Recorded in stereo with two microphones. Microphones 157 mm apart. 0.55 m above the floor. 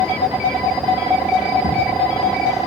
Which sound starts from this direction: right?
Footsteps, at 1.6 s.